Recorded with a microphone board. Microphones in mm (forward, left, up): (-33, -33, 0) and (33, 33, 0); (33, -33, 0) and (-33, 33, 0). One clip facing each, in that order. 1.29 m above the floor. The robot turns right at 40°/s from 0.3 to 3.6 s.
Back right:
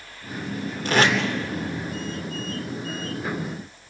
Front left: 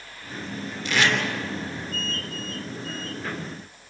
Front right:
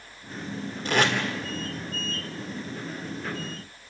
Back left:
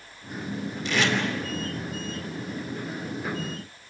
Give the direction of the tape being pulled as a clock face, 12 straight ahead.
3 o'clock.